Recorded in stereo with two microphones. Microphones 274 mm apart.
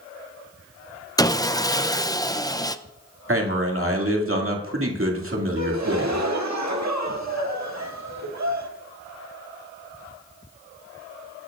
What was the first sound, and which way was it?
Sawing, 15° left (ahead or behind).